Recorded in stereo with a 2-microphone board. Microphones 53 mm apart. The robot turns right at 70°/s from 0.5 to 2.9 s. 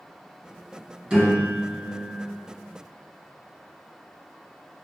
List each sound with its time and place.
1.1 s a piano: 20° right (ahead or behind), 1.8 m